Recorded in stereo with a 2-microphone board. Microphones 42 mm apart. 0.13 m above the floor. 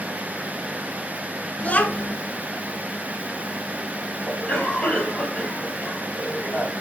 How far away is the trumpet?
I don't hear a trumpet.